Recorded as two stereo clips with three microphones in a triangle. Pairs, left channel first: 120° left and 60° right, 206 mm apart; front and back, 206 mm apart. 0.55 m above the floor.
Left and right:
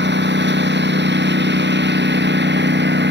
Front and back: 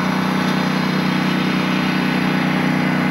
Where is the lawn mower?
90° right.